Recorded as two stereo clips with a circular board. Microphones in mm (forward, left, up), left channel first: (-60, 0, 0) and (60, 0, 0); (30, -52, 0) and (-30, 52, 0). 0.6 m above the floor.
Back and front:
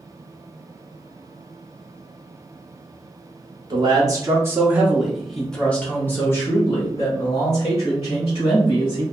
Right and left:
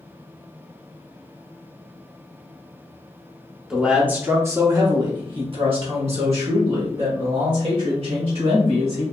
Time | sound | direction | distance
3.7 | a man speaking | 35° left | 1.1 m